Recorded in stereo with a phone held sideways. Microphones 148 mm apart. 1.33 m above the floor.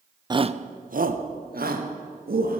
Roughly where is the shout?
Right.